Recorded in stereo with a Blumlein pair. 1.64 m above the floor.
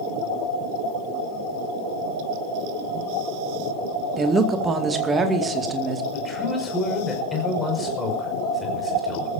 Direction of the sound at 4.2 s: 15° right.